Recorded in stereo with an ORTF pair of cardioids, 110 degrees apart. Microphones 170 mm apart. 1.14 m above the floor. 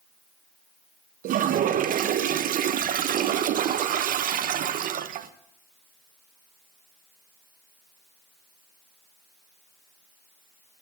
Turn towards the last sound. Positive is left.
turn(degrees=-55)